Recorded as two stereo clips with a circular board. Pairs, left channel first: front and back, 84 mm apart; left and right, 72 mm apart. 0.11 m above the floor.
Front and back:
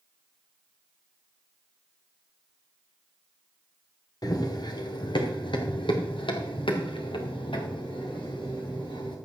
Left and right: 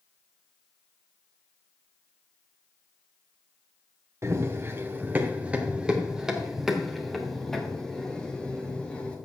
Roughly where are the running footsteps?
Ahead right.